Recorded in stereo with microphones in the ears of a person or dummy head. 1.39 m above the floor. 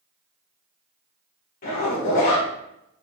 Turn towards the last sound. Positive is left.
turn(degrees=55)  # may be behind; listen again after turning